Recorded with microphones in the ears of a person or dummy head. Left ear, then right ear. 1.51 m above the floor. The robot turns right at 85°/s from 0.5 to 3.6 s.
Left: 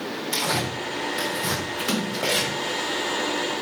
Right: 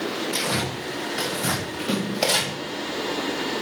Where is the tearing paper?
45° left (ahead or behind), 7 m; by 2.5 s 55° right (ahead or behind), 7 m.